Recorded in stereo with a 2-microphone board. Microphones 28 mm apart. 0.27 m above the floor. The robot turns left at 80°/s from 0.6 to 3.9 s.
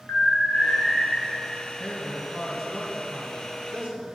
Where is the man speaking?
55° left, 1.7 m; by 4.0 s 115° right, 1.7 m.